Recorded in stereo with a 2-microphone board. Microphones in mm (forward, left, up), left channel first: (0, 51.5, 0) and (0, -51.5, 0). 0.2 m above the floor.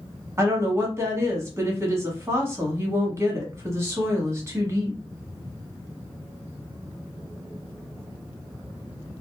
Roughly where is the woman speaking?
Right.